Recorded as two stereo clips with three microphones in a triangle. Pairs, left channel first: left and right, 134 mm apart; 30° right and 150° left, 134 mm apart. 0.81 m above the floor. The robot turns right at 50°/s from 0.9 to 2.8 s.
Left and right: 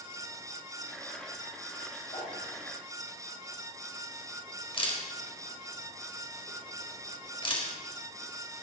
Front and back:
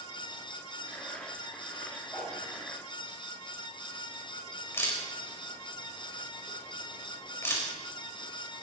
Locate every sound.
2.1 s a whoosh: 50° left, 5.5 m; by 2.4 s 65° left, 5.5 m
4.7 s a camera shutter: 40° left, 3.5 m